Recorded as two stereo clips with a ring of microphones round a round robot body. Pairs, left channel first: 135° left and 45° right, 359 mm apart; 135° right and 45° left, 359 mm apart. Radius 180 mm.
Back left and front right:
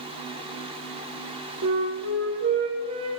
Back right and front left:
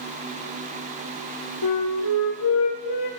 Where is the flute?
100° right, 3.5 m.